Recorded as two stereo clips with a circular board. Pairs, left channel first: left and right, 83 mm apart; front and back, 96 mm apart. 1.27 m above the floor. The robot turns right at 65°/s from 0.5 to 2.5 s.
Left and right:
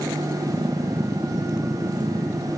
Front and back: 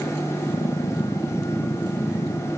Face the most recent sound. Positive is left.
No sound to turn to.